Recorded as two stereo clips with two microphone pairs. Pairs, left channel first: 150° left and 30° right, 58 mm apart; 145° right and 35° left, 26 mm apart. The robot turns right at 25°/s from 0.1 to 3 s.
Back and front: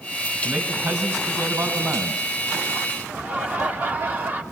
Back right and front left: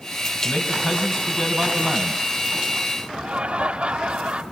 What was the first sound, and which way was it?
A man speaking, 90° right.